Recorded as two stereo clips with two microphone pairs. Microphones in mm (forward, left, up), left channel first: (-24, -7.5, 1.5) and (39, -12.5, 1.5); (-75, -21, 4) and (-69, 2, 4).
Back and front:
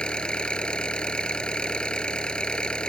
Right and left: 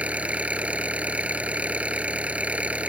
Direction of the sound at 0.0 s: 100° left.